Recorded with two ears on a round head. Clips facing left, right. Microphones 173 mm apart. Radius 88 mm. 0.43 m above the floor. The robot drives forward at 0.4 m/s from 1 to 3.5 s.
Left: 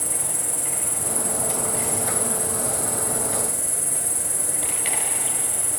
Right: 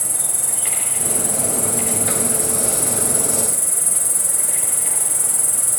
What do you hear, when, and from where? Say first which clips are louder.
0.0 s an insect: left 1 dB; 30° right (ahead or behind), 2.5 m; by 5.8 s 45° right (ahead or behind), 2 m